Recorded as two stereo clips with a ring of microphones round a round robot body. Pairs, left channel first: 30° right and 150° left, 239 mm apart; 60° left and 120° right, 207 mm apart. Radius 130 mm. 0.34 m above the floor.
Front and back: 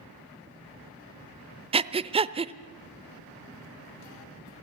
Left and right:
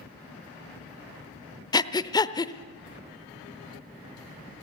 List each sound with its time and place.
1.7 s breathing: 110° left, 0.7 m